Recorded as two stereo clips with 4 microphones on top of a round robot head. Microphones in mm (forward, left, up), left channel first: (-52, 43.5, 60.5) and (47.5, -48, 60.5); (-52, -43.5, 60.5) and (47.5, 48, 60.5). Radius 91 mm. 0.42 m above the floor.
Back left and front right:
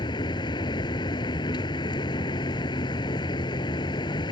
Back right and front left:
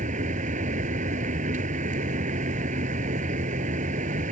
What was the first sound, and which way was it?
A vehicle, 75° left.